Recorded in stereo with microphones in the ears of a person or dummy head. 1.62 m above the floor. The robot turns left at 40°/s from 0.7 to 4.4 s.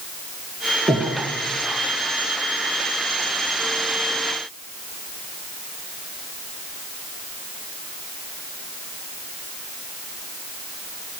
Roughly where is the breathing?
Centre.